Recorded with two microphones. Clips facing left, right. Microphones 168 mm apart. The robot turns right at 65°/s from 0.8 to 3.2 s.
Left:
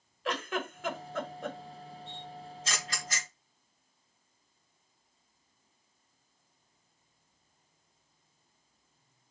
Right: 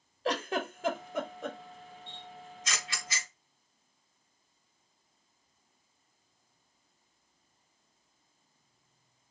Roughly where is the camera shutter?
Centre.